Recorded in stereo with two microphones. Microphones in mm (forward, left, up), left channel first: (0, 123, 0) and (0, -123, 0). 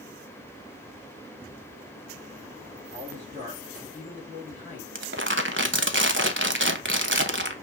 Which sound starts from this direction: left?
A man speaking, at 2.9 s.